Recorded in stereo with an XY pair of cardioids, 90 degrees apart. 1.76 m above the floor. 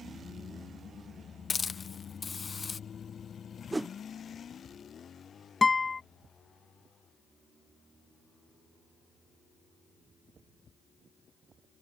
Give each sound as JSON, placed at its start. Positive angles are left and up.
{"t": 1.5, "sound": "a hiss", "azimuth_deg": 35}
{"t": 3.7, "sound": "a whoosh", "azimuth_deg": -20}
{"t": 5.6, "sound": "a guitar", "azimuth_deg": 35}